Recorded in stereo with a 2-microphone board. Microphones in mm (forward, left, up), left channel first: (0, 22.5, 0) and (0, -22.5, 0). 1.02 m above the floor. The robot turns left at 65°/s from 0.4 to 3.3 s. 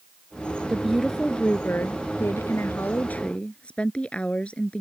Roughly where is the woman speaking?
Behind.